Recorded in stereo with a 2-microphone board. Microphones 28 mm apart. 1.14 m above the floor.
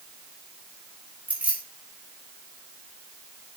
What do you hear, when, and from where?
1.3 s keys jangling: 45° right (ahead or behind), 3.5 m